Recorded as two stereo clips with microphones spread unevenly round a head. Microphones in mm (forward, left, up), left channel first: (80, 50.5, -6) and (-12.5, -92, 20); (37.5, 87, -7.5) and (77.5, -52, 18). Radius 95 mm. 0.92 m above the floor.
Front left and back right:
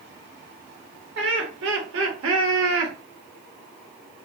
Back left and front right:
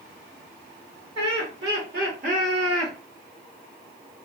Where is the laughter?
110° right, 1.7 m; by 2.9 s 150° right, 0.9 m.